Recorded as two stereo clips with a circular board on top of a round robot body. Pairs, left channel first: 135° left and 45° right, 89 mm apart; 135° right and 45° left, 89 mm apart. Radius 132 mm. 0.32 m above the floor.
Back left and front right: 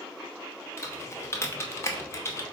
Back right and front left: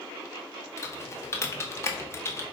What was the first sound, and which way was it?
Typing on a keyboard, straight behind.